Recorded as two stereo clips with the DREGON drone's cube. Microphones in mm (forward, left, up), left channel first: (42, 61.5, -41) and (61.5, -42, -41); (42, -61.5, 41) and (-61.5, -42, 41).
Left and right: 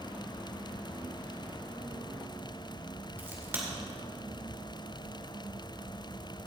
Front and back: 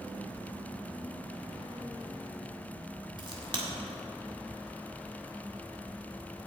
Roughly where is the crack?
Behind right.